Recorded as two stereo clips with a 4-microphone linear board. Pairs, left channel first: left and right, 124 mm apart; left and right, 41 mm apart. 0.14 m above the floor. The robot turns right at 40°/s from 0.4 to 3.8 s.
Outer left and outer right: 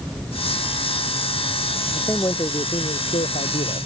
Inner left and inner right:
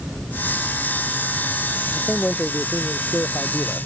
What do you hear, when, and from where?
1.9 s a man speaking: 15° left; by 3.9 s 90° left